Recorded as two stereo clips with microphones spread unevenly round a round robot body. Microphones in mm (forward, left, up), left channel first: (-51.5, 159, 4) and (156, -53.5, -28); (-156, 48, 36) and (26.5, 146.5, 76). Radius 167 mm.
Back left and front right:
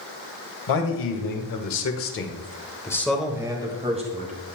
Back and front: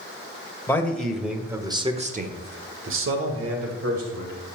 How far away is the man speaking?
About 2 m.